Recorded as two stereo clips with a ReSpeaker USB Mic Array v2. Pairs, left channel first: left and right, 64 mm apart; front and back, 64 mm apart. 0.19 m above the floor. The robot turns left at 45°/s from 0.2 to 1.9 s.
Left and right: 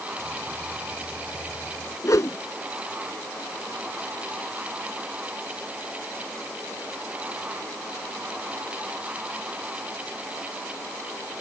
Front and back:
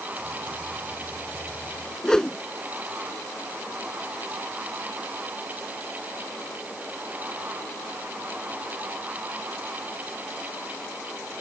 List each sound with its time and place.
2.0 s a whoosh: 80° left